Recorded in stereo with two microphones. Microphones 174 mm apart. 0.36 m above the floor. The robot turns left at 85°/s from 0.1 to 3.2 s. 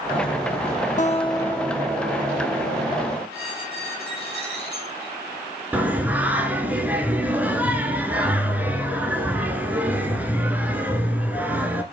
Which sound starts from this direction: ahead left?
A guitar, at 1.0 s.